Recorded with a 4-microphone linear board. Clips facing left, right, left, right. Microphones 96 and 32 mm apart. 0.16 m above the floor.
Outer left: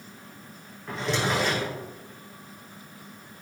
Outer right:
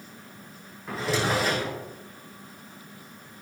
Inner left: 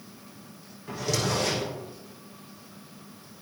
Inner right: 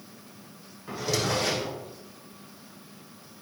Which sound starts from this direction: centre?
A drawer, at 0.9 s.